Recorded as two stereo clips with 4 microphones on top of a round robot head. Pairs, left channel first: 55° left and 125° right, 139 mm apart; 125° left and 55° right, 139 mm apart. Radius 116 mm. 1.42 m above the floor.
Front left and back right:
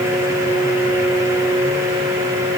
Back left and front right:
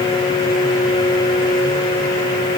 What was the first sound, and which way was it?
Only background noise.